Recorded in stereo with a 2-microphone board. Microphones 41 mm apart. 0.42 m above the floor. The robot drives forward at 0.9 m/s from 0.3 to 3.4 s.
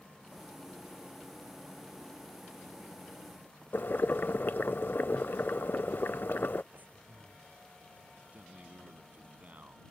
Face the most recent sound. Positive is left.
turn(degrees=-40)  # may be behind; listen again after turning